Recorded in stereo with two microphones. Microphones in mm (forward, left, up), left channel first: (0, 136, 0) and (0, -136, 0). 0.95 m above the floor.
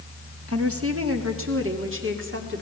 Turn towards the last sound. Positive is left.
turn(degrees=-45)  # may be behind; listen again after turning